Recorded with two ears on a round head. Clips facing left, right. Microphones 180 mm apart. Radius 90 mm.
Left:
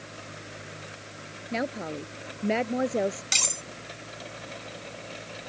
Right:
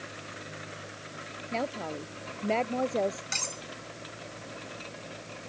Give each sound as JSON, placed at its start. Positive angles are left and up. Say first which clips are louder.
{"t": 1.5, "sound": "a woman speaking", "louder": "left 2 dB", "side_deg": 15}
{"t": 3.3, "sound": "cutlery clinking", "louder": "left 2 dB", "side_deg": 45}